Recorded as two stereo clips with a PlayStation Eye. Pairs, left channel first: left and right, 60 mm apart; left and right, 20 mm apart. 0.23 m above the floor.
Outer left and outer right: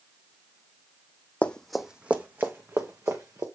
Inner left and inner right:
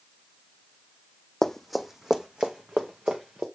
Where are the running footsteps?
25° left (ahead or behind), 0.7 m; by 3.5 s 55° right (ahead or behind), 1.8 m.